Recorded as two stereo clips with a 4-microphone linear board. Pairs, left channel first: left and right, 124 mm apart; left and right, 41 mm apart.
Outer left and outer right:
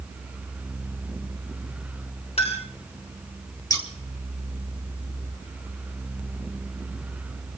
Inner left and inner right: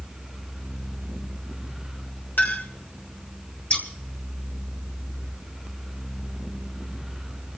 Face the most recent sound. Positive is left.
turn(degrees=30)  # may be behind; listen again after turning